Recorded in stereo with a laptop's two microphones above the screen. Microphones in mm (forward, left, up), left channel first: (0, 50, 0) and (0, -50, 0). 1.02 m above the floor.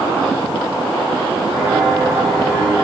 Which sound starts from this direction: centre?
Footsteps, at 1.5 s.